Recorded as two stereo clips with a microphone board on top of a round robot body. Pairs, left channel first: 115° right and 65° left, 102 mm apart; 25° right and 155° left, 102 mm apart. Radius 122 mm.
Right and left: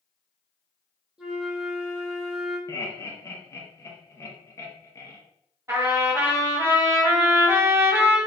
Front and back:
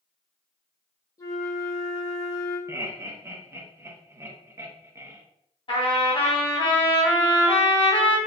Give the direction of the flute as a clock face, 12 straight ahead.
12 o'clock.